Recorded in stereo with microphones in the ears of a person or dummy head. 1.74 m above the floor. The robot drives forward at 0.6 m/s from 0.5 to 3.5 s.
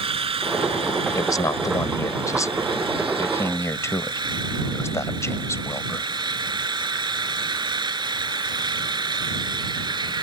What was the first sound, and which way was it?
An engine running, 30° right (ahead or behind).